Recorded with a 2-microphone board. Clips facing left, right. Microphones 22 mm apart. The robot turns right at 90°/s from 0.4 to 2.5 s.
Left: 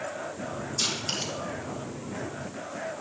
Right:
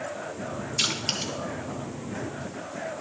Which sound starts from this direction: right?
Crushing, at 0.8 s.